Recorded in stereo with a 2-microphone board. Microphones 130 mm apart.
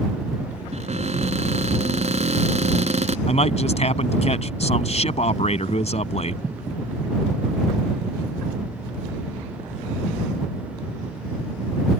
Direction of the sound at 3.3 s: 55° left (ahead or behind).